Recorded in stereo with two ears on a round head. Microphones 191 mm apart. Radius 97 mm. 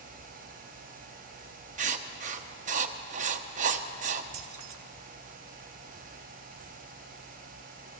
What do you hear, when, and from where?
1.8 s writing: 35° right (ahead or behind), 1.0 m
4.3 s keys jangling: 60° right (ahead or behind), 1.9 m